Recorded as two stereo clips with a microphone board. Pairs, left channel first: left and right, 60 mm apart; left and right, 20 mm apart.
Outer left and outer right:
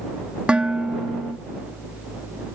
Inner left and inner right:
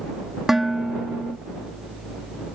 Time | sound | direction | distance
0.5 | dishes clattering | 20° right (ahead or behind) | ?